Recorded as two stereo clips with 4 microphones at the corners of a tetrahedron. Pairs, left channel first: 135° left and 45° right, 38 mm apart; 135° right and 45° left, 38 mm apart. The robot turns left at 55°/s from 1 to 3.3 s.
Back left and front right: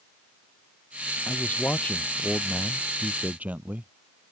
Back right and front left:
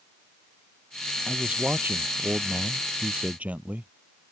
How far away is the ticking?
I don't hear ticking.